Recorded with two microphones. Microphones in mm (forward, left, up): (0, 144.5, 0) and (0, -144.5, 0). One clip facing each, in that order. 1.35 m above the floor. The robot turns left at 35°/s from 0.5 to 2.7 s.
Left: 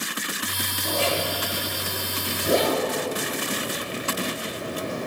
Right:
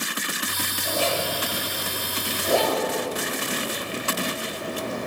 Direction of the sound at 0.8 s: 75° left (ahead or behind).